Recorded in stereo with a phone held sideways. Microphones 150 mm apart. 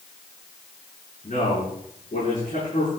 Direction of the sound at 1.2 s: 65° left (ahead or behind).